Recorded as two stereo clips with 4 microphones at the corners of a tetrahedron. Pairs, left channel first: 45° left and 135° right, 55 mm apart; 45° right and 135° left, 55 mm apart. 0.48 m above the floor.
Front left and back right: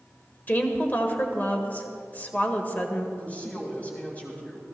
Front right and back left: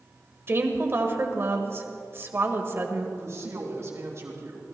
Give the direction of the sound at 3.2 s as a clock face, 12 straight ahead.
8 o'clock.